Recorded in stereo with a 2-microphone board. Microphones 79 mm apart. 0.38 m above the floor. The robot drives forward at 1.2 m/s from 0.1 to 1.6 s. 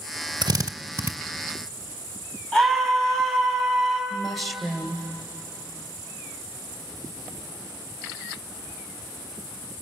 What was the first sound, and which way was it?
A drill, 65° right (ahead or behind).